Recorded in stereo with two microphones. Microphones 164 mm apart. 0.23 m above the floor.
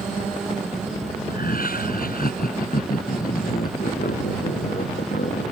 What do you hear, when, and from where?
1.3 s laughter: 60° left (ahead or behind)